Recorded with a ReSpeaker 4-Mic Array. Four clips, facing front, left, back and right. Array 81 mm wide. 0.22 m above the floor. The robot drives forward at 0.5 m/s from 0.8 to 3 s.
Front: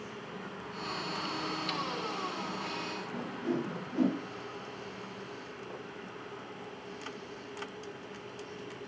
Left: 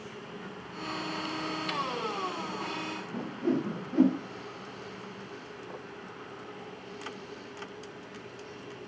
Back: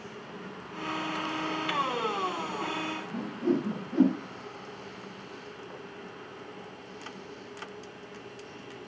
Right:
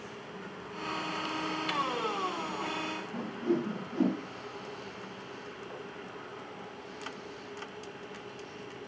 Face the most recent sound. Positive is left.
turn(degrees=125)